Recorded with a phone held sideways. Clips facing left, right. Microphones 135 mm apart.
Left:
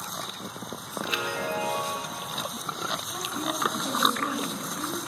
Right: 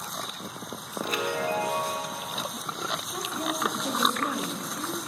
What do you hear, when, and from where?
1.0 s a chime: 45° right (ahead or behind), 0.5 m
3.1 s a woman speaking: 50° right (ahead or behind), 1.1 m